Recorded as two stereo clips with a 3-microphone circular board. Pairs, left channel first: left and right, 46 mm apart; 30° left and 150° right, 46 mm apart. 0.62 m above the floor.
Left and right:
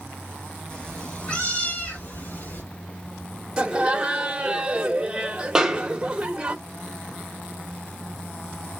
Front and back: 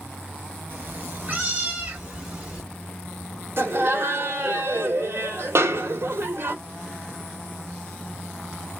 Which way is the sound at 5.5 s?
165° right.